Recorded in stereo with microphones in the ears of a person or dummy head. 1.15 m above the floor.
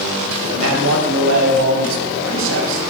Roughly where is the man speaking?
Right.